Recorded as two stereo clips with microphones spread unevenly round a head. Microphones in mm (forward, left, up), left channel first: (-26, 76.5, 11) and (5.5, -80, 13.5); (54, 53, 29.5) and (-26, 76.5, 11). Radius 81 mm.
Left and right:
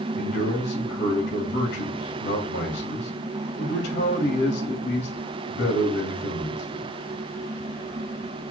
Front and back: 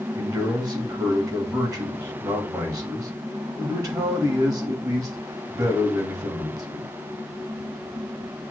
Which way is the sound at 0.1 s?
120° left.